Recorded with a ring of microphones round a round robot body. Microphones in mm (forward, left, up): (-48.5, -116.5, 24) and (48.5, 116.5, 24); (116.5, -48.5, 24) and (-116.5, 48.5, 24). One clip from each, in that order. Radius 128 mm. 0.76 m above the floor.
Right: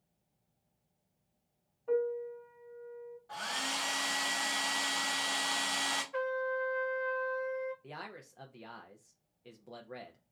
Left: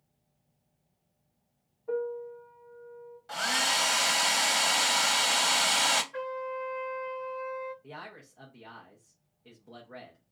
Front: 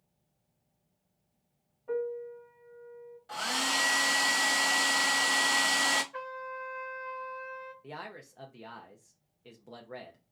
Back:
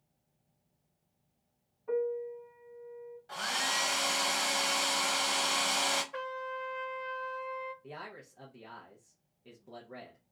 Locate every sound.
1.9 s a piano: 140° right, 1.5 m
3.3 s a hair dryer: 55° left, 0.8 m
6.1 s a trumpet: 165° right, 0.7 m
7.8 s a man speaking: 70° right, 0.6 m